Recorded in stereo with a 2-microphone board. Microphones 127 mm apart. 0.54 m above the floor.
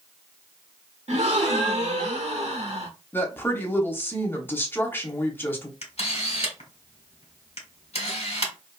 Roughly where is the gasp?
Right.